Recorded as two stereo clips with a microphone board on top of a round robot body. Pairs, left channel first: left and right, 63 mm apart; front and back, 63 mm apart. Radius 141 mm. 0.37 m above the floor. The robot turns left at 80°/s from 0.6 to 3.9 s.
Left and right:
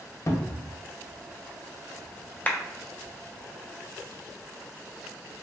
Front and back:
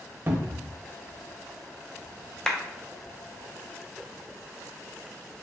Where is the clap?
65° left, 0.7 m; by 2.6 s 60° left, 0.7 m.